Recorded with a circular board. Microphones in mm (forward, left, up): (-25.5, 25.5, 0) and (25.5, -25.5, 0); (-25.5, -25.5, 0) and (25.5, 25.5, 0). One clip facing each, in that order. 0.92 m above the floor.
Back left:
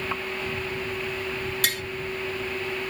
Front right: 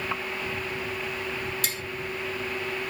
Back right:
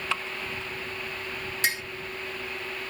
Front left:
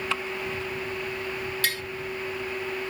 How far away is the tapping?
About 0.8 m.